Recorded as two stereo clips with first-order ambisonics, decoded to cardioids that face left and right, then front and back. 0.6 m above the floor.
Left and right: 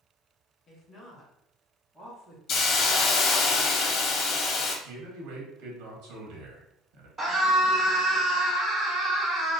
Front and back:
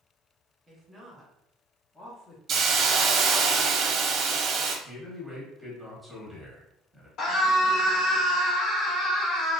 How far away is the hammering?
I don't hear hammering.